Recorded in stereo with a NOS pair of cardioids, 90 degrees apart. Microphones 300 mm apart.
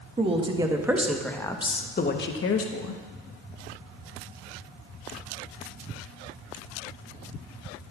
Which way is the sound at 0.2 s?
20° right.